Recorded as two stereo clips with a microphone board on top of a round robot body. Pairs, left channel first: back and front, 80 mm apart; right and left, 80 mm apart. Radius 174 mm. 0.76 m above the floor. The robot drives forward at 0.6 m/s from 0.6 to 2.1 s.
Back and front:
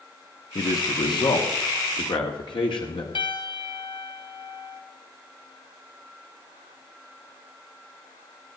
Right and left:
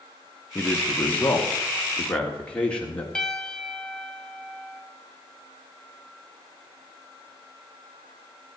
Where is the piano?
170° right, 1.7 m.